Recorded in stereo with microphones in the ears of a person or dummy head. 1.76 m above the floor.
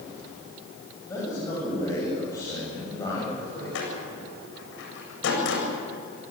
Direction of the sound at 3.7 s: 75° left (ahead or behind).